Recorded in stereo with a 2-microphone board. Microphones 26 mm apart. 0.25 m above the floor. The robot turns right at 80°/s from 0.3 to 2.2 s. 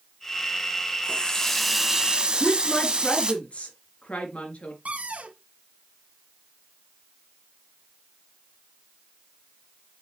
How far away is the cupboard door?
About 1.5 m.